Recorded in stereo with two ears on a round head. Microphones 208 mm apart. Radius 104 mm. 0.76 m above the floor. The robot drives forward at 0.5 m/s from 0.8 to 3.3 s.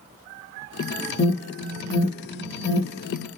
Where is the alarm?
30° left (ahead or behind), 1.5 m; by 3.3 s 35° left (ahead or behind), 1.4 m.